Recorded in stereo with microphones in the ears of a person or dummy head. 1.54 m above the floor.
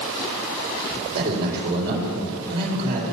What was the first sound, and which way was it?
A man speaking, 60° right (ahead or behind).